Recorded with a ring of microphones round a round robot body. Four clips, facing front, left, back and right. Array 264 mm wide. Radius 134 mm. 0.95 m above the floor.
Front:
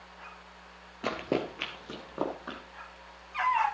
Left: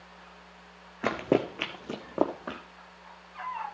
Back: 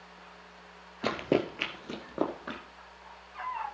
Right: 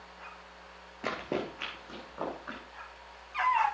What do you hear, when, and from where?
1.0 s running footsteps: 115° left, 1.0 m; by 2.6 s 100° left, 2.5 m